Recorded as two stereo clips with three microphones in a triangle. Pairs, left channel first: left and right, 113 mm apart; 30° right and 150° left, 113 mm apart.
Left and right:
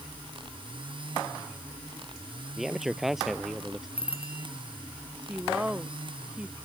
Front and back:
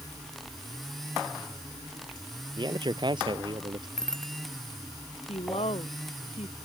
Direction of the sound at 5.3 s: 10° right.